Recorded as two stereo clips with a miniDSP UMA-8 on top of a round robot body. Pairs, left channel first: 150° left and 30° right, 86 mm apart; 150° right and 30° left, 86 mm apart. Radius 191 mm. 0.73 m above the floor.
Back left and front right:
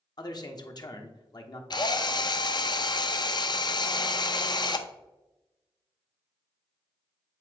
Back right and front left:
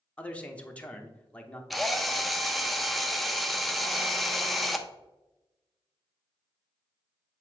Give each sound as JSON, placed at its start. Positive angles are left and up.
{"t": 0.2, "sound": "a man speaking", "azimuth_deg": 140, "distance_m": 1.2}
{"t": 1.7, "sound": "a drill", "azimuth_deg": 120, "distance_m": 0.7}